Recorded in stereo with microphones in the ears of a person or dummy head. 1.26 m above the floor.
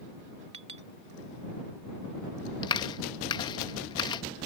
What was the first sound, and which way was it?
A clink, 35° right (ahead or behind).